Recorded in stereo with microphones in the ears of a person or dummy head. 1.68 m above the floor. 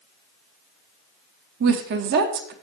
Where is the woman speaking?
50° right (ahead or behind), 0.9 m.